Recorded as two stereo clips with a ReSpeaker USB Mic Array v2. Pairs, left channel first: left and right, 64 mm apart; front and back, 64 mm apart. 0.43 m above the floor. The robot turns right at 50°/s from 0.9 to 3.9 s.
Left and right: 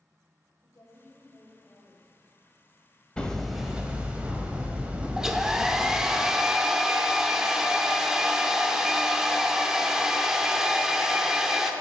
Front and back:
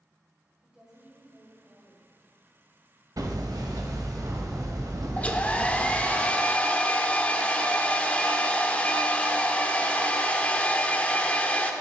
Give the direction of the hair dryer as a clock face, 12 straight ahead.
1 o'clock.